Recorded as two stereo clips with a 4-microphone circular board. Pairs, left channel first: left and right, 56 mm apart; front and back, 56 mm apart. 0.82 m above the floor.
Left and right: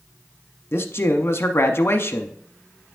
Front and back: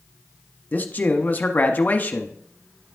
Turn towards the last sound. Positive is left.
turn(degrees=55)